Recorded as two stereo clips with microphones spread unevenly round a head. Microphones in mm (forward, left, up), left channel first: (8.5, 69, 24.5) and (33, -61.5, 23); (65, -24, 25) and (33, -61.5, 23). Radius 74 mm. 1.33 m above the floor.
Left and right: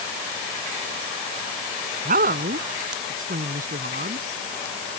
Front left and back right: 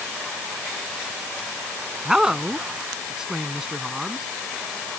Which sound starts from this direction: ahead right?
A woman speaking, at 2.0 s.